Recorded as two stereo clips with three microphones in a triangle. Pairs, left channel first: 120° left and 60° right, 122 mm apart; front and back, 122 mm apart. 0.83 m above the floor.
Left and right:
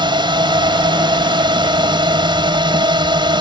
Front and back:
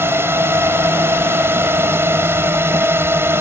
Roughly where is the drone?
Right.